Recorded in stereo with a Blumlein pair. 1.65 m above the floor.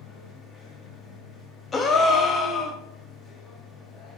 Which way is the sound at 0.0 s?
20° left.